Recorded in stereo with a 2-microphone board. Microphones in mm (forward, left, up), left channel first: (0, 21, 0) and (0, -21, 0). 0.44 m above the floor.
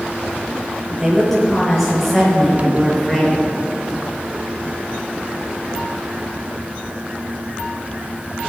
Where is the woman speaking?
Centre (ahead or behind), 6.5 m; by 3.5 s 5° left (ahead or behind), 5 m.